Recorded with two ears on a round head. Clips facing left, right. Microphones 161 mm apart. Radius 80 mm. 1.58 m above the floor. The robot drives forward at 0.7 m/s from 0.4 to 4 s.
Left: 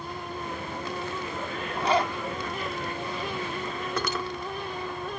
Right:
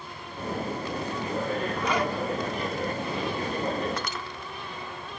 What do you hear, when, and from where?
1.8 s a zipper: 30° left (ahead or behind); by 2.1 s 25° left (ahead or behind)
4.0 s cutlery clinking: 75° left (ahead or behind)